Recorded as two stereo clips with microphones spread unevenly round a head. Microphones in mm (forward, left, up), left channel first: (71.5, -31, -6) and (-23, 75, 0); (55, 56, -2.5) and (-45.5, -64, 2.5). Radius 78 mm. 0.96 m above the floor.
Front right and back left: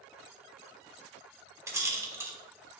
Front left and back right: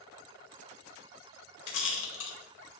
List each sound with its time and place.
1.7 s a rattle: 60° left, 1.3 m